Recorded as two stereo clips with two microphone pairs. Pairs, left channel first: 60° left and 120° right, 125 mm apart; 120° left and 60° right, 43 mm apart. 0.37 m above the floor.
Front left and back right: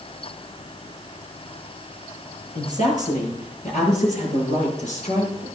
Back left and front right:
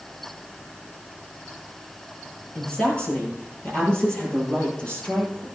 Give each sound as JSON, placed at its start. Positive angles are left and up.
{"t": 2.5, "sound": "a woman speaking", "azimuth_deg": 60, "distance_m": 8.0}